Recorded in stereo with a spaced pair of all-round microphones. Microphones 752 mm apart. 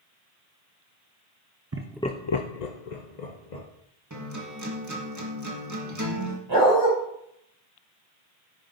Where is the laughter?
20° right (ahead or behind), 0.7 m; by 3.6 s 65° left (ahead or behind), 1.8 m.